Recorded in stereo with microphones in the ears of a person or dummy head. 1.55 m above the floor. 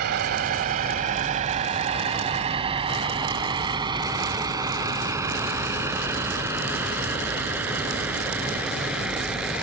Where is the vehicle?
55° right (ahead or behind); by 9.6 s 5° right (ahead or behind).